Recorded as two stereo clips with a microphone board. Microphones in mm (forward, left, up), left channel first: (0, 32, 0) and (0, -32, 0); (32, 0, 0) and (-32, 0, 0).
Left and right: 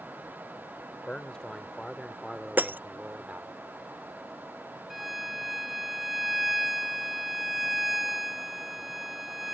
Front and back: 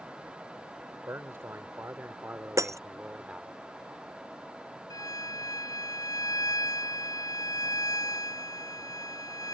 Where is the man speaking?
160° left; by 3.5 s 115° right.